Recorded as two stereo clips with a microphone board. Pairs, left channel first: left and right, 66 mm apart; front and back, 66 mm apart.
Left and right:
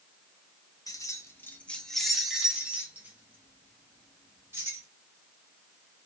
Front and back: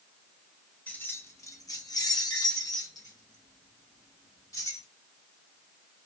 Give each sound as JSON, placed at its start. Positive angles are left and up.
{"t": 0.9, "sound": "keys jangling", "azimuth_deg": 60, "distance_m": 0.7}